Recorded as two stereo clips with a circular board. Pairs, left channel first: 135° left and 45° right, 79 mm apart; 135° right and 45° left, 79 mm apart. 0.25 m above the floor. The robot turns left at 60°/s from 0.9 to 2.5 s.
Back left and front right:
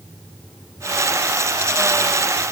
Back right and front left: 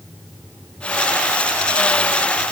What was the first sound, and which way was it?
Only background noise.